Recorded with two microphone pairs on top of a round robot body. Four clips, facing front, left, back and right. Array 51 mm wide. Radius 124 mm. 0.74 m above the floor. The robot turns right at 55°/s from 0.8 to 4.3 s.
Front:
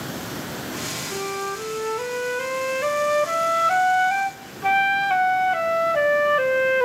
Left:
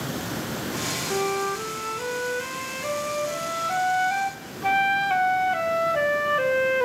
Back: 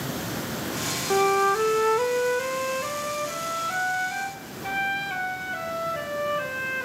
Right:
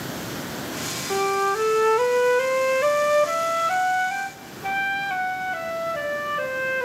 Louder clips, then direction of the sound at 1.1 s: Right 5 dB, back 9 dB; 160° right.